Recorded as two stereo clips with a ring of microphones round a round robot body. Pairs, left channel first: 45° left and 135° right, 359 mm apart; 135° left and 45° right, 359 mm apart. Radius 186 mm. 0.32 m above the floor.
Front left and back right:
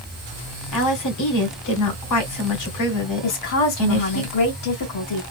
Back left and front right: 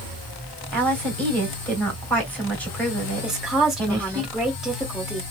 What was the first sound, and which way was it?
A woman speaking, 50° left.